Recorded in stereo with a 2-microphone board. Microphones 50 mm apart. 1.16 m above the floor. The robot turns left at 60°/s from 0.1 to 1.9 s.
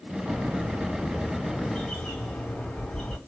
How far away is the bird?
About 1.6 m.